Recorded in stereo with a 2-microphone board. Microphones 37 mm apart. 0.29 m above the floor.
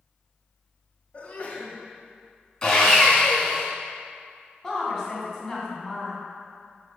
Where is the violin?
No violin in this recording.